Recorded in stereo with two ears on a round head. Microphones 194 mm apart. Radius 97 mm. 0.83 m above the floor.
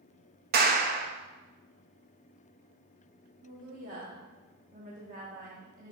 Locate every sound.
0.5 s a clap: 45° right (ahead or behind), 0.8 m
3.4 s a woman speaking: 40° right (ahead or behind), 1.3 m